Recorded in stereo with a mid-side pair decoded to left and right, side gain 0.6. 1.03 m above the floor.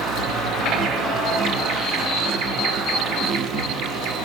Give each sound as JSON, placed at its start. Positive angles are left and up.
{"t": 0.0, "sound": "an insect", "azimuth_deg": -60, "distance_m": 1.0}